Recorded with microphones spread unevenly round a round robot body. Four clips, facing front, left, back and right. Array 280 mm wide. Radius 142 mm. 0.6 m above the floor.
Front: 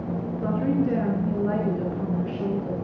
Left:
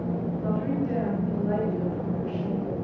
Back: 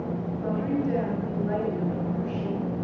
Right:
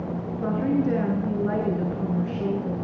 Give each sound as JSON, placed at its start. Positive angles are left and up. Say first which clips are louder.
{"t": 0.4, "sound": "a woman speaking", "louder": "right 6 dB, front 3 dB", "azimuth_deg": -50, "distance_m": 8.5}